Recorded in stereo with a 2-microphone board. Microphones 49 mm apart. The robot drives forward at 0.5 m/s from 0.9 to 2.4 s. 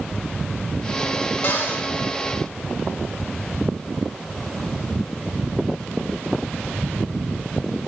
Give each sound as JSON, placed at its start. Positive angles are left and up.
{"t": 1.4, "sound": "a cupboard door", "side_deg": 40, "distance_m": 0.6}